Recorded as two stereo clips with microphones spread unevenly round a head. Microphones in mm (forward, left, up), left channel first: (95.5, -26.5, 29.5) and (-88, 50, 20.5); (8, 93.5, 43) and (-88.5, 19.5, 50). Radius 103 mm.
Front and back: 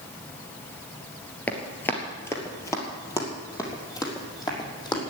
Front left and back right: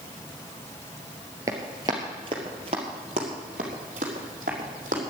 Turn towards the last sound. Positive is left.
turn(degrees=-90)